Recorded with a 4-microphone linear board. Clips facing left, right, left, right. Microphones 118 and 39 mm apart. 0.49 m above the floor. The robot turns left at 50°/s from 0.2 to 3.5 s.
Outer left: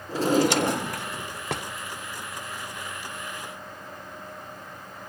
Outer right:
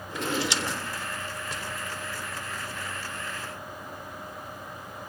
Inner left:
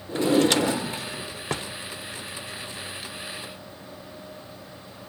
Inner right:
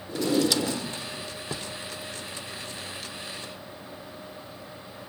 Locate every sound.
0.1 s a drawer: 140° left, 0.5 m; by 1.7 s 70° left, 0.5 m